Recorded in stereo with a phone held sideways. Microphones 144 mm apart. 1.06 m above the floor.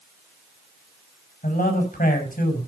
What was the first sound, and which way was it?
A man speaking, 80° left.